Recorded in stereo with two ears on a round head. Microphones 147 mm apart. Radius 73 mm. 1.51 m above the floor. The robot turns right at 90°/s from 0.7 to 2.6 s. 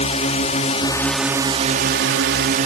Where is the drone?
140° left; by 2.7 s 50° right.